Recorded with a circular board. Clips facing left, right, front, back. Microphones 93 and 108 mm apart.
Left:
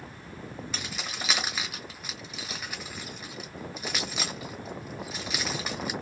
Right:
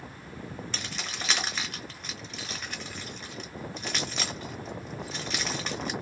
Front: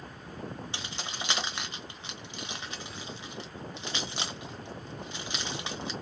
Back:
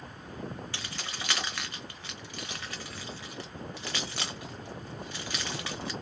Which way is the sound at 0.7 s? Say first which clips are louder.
Left 1 dB, front 1 dB; 15° left.